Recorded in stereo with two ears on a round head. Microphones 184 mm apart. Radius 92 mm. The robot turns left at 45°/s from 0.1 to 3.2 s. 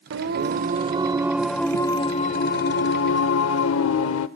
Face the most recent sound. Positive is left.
turn(degrees=105)